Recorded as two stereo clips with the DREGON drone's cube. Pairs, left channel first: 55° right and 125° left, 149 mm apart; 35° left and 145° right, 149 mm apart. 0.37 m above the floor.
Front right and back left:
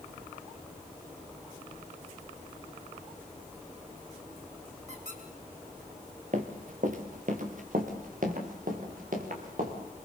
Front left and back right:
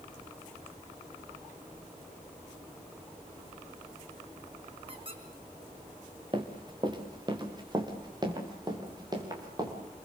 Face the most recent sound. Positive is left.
turn(degrees=150)